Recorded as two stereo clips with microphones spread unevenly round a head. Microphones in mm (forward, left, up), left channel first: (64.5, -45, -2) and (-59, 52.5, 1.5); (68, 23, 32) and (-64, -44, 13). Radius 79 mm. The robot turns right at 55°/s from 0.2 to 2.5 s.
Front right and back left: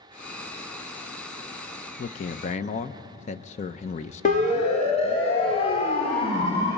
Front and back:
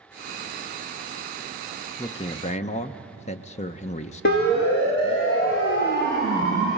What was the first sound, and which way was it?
A man speaking, 40° right.